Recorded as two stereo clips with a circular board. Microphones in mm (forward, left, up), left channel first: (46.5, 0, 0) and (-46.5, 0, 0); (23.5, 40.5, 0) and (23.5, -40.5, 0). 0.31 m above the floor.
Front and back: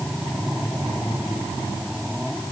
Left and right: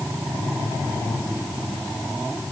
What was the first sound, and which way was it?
Only background noise.